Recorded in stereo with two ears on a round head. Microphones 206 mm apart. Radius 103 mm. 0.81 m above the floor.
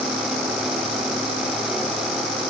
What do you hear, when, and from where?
Only background noise.